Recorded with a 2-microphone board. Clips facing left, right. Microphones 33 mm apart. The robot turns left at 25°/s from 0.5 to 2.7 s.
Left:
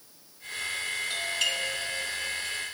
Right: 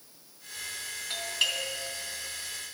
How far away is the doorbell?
About 2.5 m.